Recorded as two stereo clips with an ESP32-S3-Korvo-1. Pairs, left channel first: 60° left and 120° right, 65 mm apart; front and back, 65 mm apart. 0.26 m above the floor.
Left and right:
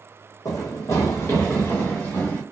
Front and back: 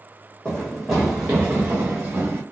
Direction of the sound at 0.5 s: 75° left.